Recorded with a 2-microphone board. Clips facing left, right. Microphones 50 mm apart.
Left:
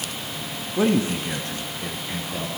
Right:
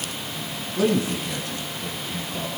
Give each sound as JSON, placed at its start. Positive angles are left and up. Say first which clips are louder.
{"t": 0.8, "sound": "a man speaking", "louder": "left 1 dB", "side_deg": 25, "distance_m": 1.7}